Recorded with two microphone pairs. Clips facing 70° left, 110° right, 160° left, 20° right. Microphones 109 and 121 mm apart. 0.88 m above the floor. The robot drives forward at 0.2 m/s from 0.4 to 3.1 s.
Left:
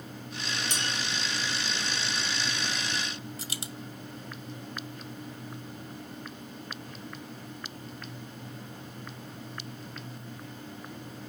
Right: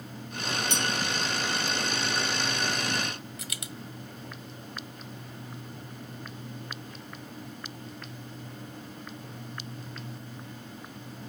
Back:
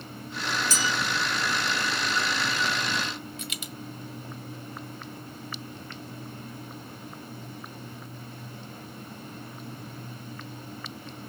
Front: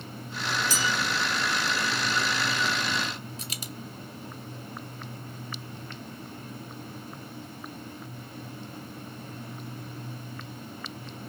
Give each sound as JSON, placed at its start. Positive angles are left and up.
{"t": 0.7, "sound": "a bell", "azimuth_deg": 20, "distance_m": 0.9}
{"t": 3.4, "sound": "a dropped coin", "azimuth_deg": 20, "distance_m": 0.7}